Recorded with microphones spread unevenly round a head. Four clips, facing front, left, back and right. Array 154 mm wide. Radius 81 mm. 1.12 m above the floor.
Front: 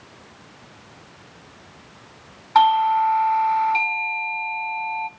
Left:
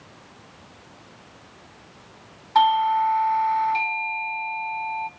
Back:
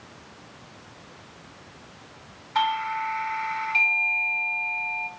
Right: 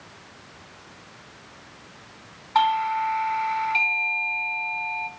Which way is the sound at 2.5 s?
10° left.